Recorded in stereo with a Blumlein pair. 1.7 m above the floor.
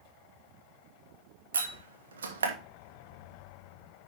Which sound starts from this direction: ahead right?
A door slam, at 1.5 s.